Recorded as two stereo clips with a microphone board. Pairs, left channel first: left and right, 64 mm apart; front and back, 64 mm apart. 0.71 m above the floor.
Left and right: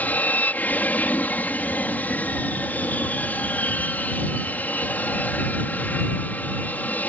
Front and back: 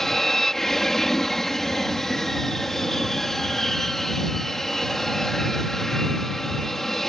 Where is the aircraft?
80° left.